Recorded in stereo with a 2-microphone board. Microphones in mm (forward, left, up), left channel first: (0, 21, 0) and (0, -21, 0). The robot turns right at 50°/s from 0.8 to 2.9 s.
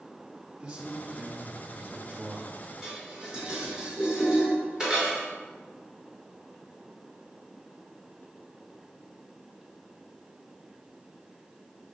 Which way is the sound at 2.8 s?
15° right (ahead or behind).